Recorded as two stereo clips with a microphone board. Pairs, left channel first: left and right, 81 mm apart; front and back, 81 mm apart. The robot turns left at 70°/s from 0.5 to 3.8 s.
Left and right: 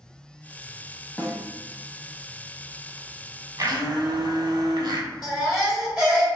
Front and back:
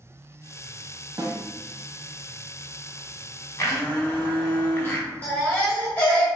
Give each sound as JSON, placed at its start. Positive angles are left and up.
{"t": 1.2, "sound": "a snare drum", "azimuth_deg": 155, "distance_m": 0.7}
{"t": 3.6, "sound": "a blender", "azimuth_deg": -45, "distance_m": 0.6}
{"t": 5.2, "sound": "a baby crying", "azimuth_deg": -30, "distance_m": 1.0}